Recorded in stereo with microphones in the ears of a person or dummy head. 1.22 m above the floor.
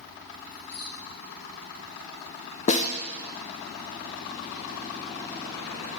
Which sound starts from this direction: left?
A snare drum, at 2.7 s.